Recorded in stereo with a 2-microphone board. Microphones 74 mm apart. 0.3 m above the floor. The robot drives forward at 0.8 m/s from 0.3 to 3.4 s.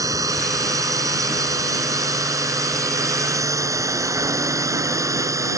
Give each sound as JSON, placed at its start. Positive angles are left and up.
{"t": 0.0, "sound": "a drone", "side_deg": -50}